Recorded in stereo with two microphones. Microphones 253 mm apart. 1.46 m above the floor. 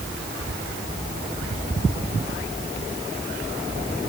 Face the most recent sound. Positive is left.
No sound to turn to.